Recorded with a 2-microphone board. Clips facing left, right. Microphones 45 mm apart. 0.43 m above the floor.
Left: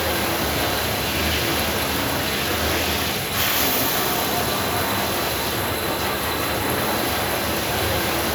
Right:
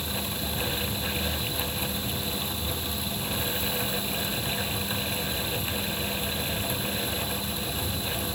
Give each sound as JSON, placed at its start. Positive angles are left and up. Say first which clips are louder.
{"t": 0.0, "sound": "running water", "louder": "left 11 dB", "side_deg": 80}